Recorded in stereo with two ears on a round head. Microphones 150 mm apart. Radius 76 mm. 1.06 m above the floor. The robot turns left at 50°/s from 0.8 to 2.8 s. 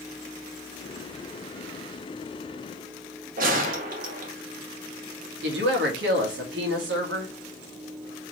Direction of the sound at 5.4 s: 75° right (ahead or behind).